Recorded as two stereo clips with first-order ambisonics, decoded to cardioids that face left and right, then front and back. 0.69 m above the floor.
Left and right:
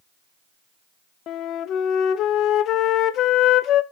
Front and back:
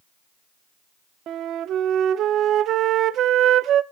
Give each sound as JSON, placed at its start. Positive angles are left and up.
{"t": 1.3, "sound": "a flute", "azimuth_deg": 135, "distance_m": 0.7}